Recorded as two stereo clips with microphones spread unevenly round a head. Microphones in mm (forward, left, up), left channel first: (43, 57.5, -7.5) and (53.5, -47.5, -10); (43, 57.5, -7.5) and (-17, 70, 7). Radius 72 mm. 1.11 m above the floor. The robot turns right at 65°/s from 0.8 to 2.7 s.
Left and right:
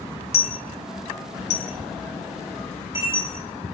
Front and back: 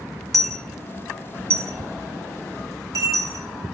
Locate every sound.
0.3 s a dropped coin: 80° left, 1.1 m; by 3.5 s 155° right, 1.1 m